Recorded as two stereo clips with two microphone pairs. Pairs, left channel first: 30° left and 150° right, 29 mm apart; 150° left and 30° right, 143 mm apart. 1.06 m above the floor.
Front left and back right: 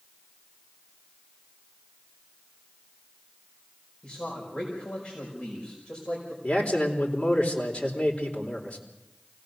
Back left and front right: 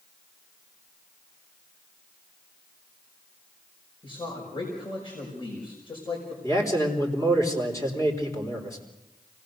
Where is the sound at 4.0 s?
95° left, 5.5 m.